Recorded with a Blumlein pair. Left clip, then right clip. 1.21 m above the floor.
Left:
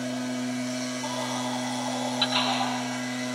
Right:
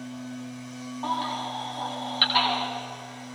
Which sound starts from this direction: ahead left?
A machine running, at 0.0 s.